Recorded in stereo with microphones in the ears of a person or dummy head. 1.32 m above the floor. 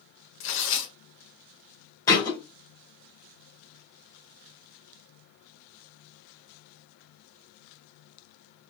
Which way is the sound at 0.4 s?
80° left.